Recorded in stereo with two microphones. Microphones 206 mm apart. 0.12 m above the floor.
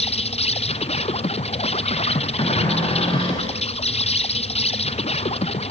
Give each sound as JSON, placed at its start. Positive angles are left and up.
{"t": 0.0, "sound": "an insect", "side_deg": 30, "distance_m": 1.2}
{"t": 2.4, "sound": "a cupboard door", "side_deg": 25, "distance_m": 9.0}